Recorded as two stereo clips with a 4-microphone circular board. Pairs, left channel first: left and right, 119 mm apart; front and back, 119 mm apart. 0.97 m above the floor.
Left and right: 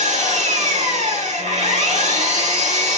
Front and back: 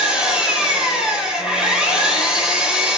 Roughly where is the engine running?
Right.